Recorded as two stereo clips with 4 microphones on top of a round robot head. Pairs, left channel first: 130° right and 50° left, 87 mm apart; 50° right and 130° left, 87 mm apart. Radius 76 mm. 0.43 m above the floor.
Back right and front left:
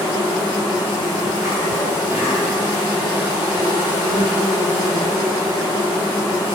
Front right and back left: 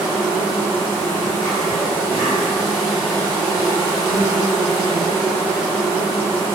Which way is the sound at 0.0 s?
30° left.